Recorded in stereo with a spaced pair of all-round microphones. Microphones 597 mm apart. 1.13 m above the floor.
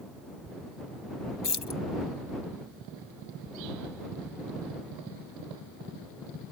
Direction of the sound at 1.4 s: 45° left (ahead or behind).